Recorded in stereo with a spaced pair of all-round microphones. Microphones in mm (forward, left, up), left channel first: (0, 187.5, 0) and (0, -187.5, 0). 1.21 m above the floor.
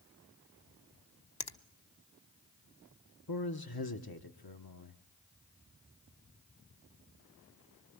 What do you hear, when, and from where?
1.4 s a finger snap: 80° left, 0.9 m
3.3 s a man speaking: 70° left (ahead or behind), 1.1 m